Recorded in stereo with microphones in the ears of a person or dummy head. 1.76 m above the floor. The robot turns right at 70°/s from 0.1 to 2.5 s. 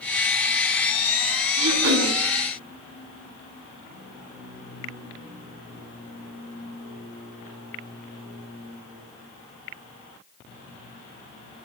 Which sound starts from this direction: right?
Throat clearing, at 1.6 s.